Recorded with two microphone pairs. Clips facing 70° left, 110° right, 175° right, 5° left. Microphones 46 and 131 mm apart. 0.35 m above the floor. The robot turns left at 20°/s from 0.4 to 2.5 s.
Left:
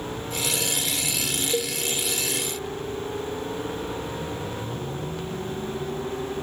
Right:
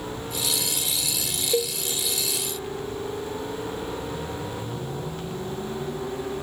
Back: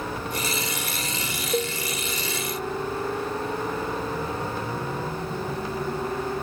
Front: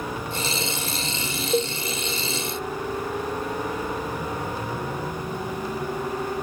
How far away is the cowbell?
About 0.8 m.